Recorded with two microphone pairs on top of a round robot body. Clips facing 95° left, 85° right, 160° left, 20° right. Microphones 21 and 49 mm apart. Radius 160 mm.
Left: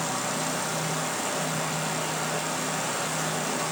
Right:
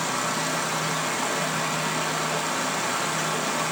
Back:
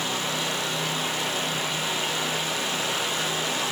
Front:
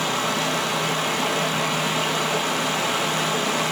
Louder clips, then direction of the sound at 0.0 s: Right 3 dB, front 5 dB; 30° right.